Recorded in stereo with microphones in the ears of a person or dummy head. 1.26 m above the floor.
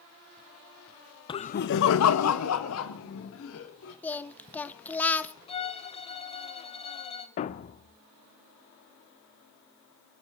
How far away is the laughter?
About 1.0 m.